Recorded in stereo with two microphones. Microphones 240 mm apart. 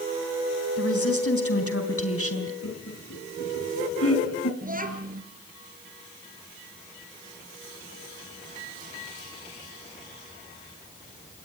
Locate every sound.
0.8 s a woman speaking: 65° left (ahead or behind), 3.5 m
2.6 s laughter: 75° left (ahead or behind), 3 m
4.6 s a child speaking: 35° right (ahead or behind), 4 m